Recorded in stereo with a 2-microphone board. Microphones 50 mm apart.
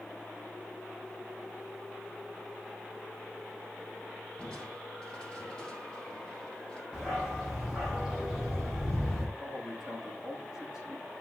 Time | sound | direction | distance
4.4 | crushing | 20° left (ahead or behind) | 4 m
6.9 | a dog barking | centre (ahead or behind) | 5.5 m
9.4 | a man speaking | 10° right (ahead or behind) | 7 m